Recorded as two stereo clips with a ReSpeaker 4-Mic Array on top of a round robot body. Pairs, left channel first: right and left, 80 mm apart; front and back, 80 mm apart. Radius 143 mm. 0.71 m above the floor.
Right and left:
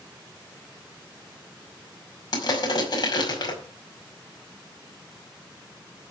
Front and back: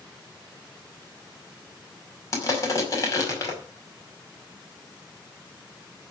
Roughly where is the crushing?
Ahead right.